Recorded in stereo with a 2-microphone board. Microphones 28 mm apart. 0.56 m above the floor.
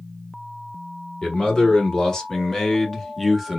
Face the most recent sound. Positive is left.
turn(degrees=-5)  # may be behind; listen again after turning